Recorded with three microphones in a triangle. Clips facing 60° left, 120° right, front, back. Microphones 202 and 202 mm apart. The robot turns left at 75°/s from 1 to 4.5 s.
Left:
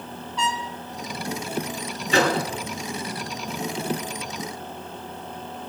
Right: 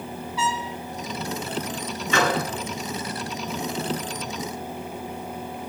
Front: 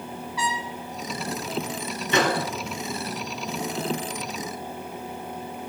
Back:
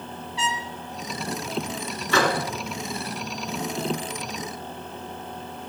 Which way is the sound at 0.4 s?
160° left.